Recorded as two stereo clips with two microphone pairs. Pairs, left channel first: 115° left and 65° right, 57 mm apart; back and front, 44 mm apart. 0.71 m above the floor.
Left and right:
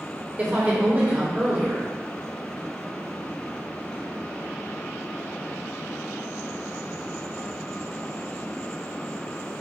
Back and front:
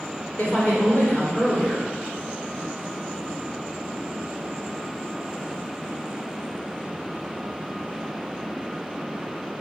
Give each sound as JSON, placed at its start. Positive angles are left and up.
{"t": 0.4, "sound": "a woman speaking", "azimuth_deg": -120, "distance_m": 3.0}